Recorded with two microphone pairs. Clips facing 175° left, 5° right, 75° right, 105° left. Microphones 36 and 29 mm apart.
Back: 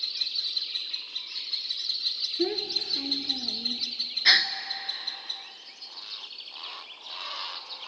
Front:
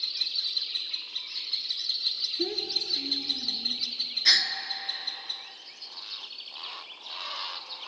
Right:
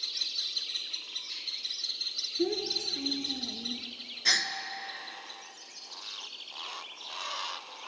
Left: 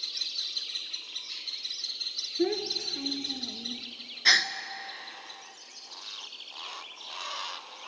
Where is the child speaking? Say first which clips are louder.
Back 4 dB, left 2 dB; 120° left, 1.0 m; by 3.9 s 150° right, 1.4 m.